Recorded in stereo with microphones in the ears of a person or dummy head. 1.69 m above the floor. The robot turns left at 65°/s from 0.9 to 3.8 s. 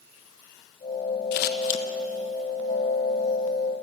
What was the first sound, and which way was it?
Scissors, 55° left (ahead or behind).